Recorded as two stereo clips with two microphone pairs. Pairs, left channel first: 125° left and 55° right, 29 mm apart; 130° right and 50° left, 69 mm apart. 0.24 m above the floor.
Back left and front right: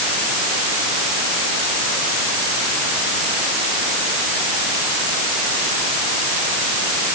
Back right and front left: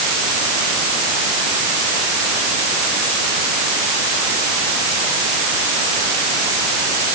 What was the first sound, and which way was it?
Only background noise.